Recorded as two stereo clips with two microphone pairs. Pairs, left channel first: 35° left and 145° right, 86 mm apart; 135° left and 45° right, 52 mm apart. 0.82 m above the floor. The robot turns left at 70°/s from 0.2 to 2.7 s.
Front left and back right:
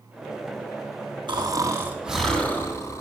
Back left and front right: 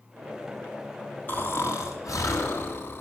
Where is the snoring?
170° right, 1.9 m; by 3.0 s 90° left, 1.9 m.